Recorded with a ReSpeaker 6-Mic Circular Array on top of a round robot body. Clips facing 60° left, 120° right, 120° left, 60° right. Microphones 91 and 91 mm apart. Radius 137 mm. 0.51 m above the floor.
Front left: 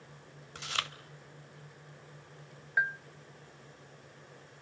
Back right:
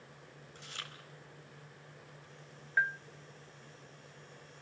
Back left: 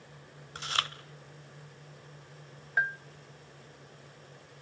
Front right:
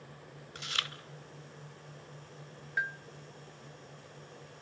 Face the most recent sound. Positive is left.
turn(degrees=130)